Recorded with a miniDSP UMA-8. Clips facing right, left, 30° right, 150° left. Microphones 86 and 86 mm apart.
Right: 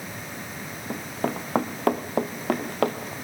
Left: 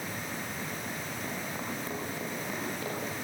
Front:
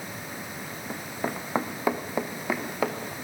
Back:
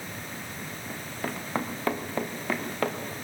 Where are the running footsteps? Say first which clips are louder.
Right 8 dB, front 3 dB; 100° right, 1.5 m; by 3.1 s 115° right, 3 m.